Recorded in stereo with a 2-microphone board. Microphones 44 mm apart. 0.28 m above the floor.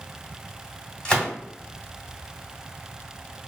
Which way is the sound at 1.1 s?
15° left (ahead or behind).